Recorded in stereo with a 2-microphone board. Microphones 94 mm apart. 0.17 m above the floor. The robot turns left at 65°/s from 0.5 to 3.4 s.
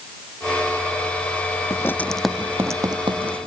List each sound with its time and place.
1.7 s writing: 35° left (ahead or behind); by 3.5 s 75° right (ahead or behind)